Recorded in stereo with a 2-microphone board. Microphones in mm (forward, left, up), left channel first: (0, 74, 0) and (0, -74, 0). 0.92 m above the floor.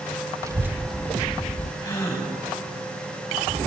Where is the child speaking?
20° right (ahead or behind), 0.8 m; by 1.7 s 55° left (ahead or behind), 0.6 m.